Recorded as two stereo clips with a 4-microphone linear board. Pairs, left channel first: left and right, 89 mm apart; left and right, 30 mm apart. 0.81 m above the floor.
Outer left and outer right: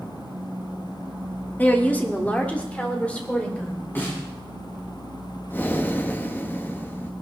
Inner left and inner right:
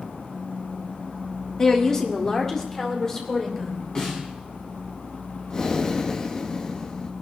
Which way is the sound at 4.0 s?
20° left (ahead or behind).